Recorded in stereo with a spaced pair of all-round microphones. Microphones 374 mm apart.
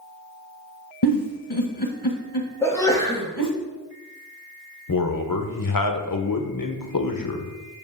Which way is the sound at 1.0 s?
80° left.